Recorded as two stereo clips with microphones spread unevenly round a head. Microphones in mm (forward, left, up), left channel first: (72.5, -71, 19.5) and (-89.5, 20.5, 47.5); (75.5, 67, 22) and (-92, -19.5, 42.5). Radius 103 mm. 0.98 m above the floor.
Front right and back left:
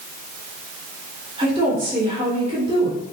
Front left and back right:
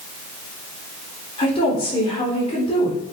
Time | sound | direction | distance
1.4 | a woman speaking | 85° left | 3.5 m